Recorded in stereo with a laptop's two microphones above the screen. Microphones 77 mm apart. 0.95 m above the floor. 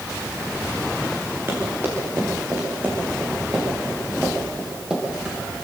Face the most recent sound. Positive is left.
turn(degrees=-10)  # may be behind; listen again after turning